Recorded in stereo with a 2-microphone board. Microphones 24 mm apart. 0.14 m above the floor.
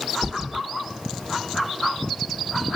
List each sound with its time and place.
0.2 s a thud: 50° right (ahead or behind), 2.0 m